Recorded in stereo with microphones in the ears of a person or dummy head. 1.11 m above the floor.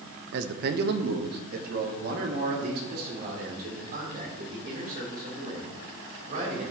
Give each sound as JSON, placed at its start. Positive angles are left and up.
{"t": 0.3, "sound": "a man speaking", "side_deg": -60, "distance_m": 0.7}